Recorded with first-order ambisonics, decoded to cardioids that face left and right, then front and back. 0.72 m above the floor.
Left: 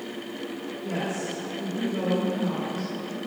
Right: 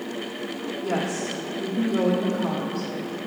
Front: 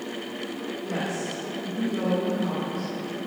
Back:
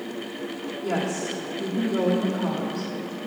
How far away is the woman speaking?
About 1.1 m.